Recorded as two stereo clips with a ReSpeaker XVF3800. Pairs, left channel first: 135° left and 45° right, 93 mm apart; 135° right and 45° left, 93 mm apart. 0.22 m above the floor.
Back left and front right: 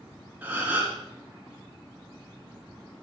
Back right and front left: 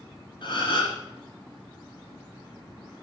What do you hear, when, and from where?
0.4 s a gasp: 115° right, 3 m